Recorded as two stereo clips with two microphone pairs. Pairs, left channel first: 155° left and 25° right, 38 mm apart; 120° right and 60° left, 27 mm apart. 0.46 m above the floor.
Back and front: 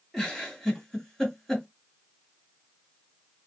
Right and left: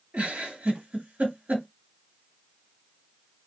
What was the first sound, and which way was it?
A giggle, 70° left.